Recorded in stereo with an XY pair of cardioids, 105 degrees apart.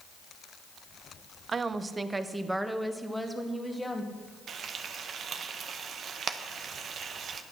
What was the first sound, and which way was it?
A woman speaking, 40° right.